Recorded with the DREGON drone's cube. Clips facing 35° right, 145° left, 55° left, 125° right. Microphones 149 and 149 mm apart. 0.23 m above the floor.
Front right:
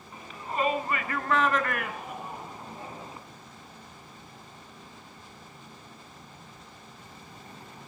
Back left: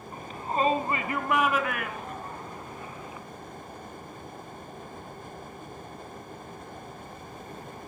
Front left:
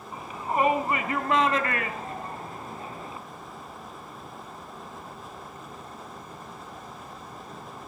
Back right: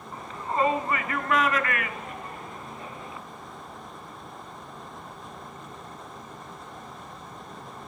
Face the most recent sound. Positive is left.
turn(degrees=10)